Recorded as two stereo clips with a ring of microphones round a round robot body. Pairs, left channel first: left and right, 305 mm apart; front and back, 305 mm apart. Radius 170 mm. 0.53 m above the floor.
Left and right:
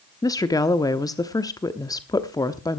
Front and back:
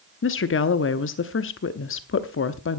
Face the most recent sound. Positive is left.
turn(degrees=15)